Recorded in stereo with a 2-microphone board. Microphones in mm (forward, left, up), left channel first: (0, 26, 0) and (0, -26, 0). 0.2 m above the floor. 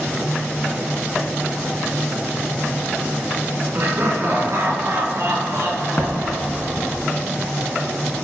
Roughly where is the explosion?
Left.